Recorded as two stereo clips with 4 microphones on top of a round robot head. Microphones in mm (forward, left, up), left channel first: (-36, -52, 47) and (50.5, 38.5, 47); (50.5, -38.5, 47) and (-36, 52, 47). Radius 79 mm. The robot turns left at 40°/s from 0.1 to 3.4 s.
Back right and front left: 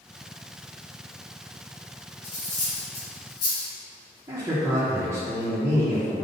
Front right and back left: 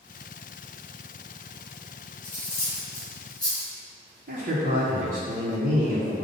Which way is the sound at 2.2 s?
85° right.